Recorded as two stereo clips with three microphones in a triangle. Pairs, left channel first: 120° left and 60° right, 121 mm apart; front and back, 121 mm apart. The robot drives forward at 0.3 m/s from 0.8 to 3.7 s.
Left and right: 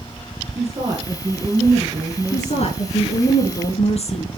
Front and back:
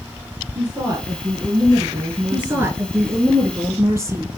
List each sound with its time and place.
0.6 s a woman speaking: 115° right, 2.5 m; by 2.8 s 125° right, 2.5 m
2.3 s a woman speaking: 110° left, 2.5 m; by 4.3 s 120° left, 3 m